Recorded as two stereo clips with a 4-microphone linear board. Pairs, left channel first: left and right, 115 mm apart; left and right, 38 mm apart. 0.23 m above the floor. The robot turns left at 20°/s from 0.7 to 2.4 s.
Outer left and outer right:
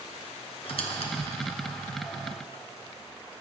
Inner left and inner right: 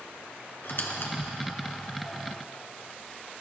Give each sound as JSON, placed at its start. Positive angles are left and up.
{"t": 0.6, "sound": "a squeak", "side_deg": 60, "distance_m": 1.9}